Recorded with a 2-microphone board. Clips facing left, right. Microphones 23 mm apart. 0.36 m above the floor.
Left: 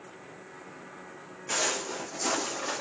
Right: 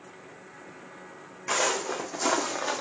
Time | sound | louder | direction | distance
1.5 | footsteps | right 3 dB | 70° right (ahead or behind) | 1.1 m